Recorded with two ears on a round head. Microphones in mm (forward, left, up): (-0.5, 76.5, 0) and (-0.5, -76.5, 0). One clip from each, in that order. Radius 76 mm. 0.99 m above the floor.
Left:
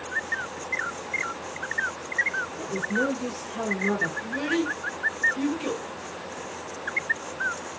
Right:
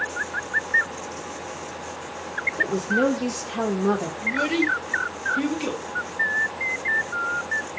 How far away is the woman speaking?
About 0.6 m.